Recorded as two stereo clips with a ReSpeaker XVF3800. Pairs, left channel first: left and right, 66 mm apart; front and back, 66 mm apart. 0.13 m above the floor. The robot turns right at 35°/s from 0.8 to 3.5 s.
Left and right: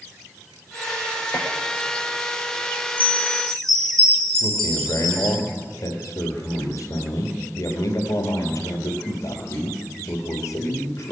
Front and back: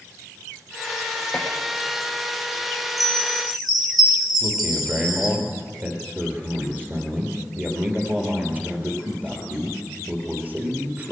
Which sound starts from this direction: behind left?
A man speaking, at 4.4 s.